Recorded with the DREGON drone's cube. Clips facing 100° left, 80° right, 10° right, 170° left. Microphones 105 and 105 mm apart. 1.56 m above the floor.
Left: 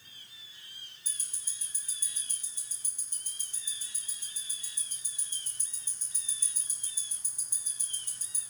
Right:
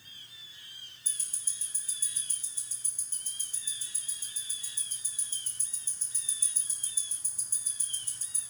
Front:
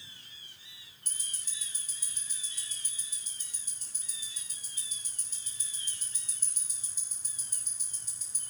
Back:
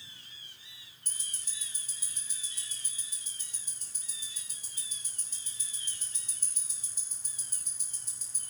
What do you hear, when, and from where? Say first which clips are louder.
1.1 s ticking: even, even; 170° left, 3 m